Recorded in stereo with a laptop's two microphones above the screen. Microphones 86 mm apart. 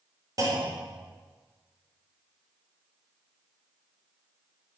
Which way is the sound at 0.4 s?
45° right (ahead or behind).